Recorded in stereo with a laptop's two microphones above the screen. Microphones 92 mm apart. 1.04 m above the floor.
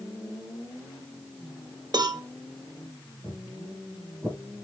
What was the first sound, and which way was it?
A cowbell, 50° right (ahead or behind).